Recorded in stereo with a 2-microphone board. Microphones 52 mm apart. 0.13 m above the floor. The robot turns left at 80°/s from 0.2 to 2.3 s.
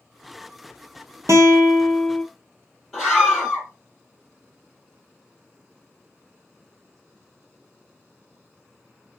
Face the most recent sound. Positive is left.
turn(degrees=10)  # may be behind; listen again after turning